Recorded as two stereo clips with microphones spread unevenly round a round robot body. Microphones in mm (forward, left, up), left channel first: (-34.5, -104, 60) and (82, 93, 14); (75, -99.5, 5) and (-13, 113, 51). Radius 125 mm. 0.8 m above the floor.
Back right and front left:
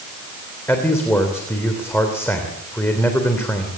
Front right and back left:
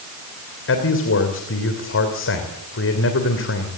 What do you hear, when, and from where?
0.7 s a man speaking: 40° right, 3 m